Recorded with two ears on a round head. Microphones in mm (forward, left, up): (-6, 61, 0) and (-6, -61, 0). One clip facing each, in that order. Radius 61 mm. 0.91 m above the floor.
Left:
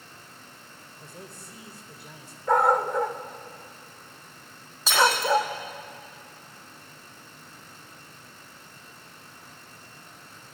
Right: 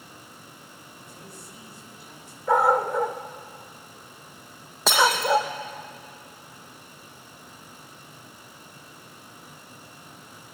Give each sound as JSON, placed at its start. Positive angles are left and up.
{"t": 1.0, "sound": "a man speaking", "side_deg": 80, "distance_m": 4.0}
{"t": 2.5, "sound": "a dog barking", "side_deg": -5, "distance_m": 1.3}
{"t": 4.9, "sound": "breaking glass", "side_deg": -50, "distance_m": 7.0}